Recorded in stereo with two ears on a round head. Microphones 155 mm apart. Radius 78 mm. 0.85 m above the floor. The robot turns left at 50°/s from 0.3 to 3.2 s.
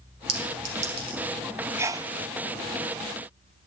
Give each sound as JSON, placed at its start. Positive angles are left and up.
{"t": 0.3, "sound": "a clink", "side_deg": -70, "distance_m": 3.5}
{"t": 1.8, "sound": "a sneeze", "side_deg": -15, "distance_m": 0.5}